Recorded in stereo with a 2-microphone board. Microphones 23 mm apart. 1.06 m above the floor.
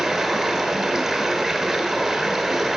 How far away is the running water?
About 1.5 m.